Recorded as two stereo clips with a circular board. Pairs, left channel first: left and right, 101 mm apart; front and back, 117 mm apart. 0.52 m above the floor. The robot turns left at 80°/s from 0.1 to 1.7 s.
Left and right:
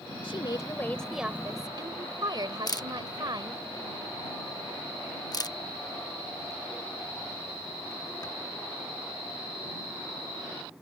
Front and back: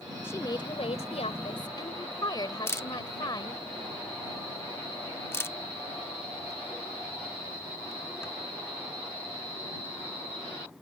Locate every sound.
0.2 s a woman speaking: 70° left; by 3.7 s 50° right
2.7 s a camera shutter: 60° left